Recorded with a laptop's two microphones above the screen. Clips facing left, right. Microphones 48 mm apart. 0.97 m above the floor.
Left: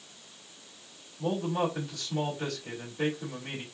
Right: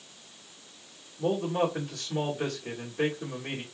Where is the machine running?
No machine running in this recording.